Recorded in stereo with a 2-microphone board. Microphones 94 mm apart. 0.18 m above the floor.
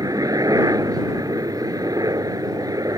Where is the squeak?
No squeak in this recording.